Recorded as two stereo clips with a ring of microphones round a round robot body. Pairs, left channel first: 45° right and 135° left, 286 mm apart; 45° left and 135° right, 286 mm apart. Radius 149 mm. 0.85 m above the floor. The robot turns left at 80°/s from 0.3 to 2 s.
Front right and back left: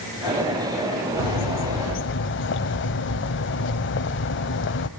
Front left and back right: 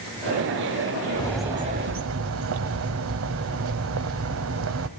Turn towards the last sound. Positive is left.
turn(degrees=-95)